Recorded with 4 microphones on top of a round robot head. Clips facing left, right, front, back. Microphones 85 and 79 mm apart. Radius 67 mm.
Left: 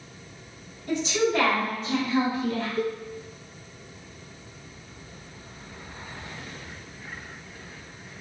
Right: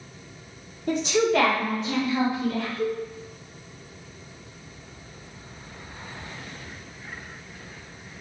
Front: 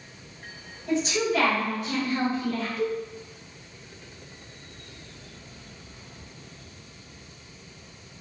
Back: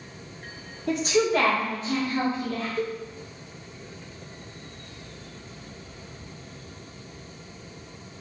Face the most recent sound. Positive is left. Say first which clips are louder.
# right 1 dB, front 2 dB
turn(degrees=135)